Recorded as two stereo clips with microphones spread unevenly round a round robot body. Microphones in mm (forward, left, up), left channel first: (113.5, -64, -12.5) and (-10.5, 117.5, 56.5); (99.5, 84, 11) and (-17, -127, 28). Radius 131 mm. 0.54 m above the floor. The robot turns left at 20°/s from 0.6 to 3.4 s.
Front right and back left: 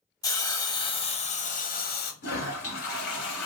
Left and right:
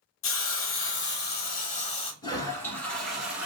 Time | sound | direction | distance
0.2 | a hiss | 25° left | 0.8 m
2.2 | a toilet flushing | 15° right | 1.6 m